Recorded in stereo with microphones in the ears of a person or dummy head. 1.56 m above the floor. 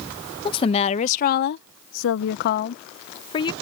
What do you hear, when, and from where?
0.5 s a woman speaking: 30° left (ahead or behind)